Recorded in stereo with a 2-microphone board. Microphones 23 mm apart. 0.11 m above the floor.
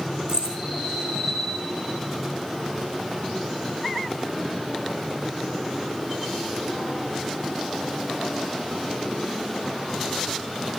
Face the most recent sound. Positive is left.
turn(degrees=-35)  # may be behind; listen again after turning